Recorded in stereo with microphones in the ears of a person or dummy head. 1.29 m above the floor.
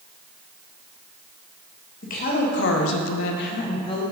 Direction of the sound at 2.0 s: 45° left (ahead or behind).